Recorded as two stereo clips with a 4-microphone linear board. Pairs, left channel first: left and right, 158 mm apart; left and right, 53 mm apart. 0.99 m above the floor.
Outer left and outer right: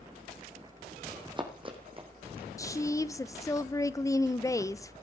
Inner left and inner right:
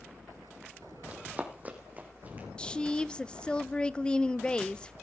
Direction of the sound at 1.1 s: 25° right (ahead or behind).